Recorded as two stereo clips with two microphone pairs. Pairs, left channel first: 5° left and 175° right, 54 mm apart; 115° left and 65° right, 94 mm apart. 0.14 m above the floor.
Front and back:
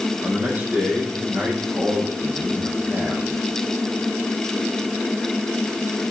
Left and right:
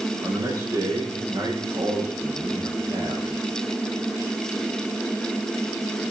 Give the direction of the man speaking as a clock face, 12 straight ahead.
4 o'clock.